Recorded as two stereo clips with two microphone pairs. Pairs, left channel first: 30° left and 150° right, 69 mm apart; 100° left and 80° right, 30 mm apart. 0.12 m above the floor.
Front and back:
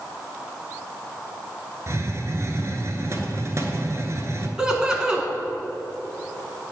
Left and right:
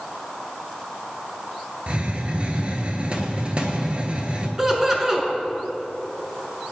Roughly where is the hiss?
Behind right.